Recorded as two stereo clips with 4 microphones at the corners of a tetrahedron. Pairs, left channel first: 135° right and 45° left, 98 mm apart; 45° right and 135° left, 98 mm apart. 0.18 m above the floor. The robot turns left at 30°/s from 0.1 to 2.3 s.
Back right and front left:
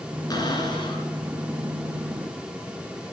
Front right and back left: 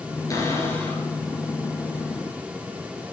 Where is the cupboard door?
95° right, 3 m; by 1.1 s 120° right, 3 m.